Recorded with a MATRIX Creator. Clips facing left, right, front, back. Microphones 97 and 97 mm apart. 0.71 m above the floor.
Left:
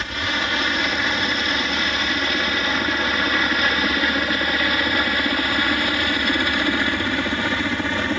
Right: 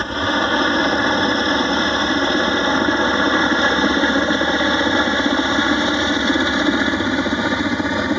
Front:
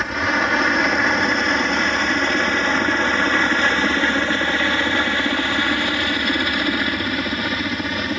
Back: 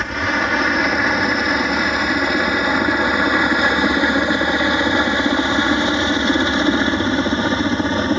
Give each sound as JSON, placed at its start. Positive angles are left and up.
{"t": 0.0, "sound": "a helicopter", "azimuth_deg": -90}